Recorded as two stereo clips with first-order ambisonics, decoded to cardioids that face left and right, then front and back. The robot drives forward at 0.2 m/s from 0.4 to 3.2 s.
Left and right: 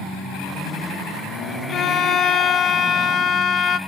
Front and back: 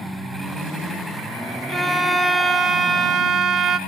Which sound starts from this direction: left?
A violin, at 1.7 s.